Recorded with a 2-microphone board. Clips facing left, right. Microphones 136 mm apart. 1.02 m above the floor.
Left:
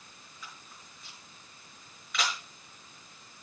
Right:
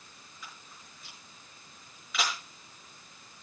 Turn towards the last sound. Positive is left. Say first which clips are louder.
# even
turn(degrees=-5)  # may be behind; listen again after turning